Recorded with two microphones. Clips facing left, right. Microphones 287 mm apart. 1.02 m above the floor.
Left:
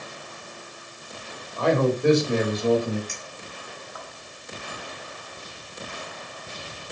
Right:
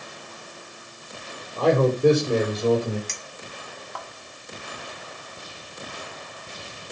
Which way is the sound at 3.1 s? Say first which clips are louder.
Even; 85° right.